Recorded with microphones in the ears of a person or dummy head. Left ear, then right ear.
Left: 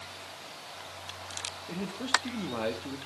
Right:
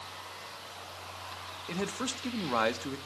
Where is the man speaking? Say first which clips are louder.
Left 5 dB; 50° right (ahead or behind), 1.2 m.